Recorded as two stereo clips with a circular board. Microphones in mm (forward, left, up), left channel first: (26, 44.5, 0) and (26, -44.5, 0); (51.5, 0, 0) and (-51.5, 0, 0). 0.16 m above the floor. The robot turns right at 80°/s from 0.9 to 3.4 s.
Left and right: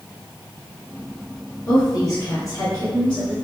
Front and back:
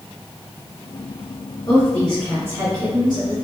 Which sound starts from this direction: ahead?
A woman speaking, at 1.7 s.